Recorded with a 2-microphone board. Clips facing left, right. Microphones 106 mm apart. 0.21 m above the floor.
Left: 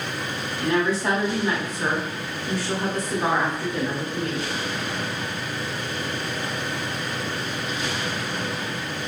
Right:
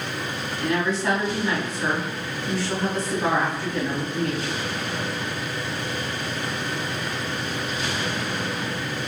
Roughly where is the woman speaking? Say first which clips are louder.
Left 2 dB; centre.